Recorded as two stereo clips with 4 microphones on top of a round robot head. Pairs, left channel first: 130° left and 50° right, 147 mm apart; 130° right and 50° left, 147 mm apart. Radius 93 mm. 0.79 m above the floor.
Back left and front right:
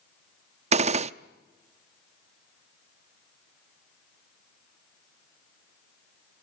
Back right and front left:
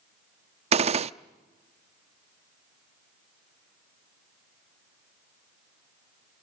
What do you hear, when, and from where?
0.7 s a gunshot: straight ahead, 0.7 m